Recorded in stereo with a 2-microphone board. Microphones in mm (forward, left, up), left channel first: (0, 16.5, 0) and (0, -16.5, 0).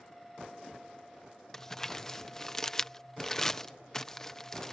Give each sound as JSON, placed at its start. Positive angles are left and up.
{"t": 1.5, "sound": "crumpling", "side_deg": 15}